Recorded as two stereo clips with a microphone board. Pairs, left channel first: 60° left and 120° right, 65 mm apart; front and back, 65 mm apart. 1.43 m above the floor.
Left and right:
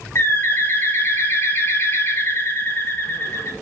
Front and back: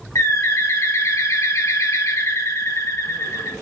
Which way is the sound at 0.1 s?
20° left.